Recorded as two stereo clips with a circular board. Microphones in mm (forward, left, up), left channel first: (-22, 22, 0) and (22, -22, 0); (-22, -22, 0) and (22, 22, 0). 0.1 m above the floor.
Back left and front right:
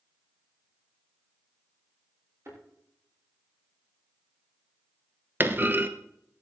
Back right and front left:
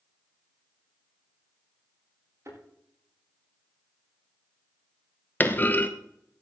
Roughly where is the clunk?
Right.